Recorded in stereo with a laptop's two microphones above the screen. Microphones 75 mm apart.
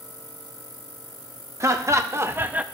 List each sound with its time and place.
1.6 s laughter: 40° right (ahead or behind), 0.9 m; by 2.6 s 15° right (ahead or behind), 0.5 m